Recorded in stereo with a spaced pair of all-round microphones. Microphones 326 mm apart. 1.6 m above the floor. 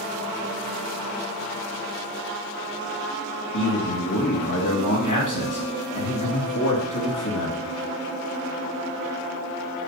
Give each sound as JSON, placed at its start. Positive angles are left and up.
{"t": 3.5, "sound": "a man speaking", "side_deg": 65, "distance_m": 2.5}